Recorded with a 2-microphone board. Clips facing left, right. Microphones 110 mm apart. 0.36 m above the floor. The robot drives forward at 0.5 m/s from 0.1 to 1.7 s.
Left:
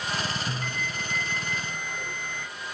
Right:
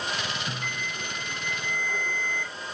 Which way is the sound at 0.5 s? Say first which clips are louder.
Left 2 dB; 20° right (ahead or behind).